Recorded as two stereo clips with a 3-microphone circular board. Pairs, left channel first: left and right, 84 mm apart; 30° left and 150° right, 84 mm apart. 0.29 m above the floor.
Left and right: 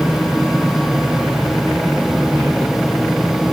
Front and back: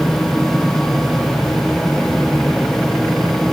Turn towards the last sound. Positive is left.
No sound to turn to.